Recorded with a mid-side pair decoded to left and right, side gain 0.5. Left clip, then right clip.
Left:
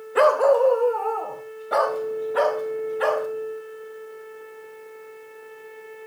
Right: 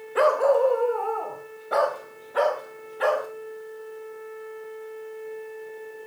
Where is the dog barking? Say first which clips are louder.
Left 3 dB; 25° left, 2.5 m; by 3.3 s 5° left, 5 m.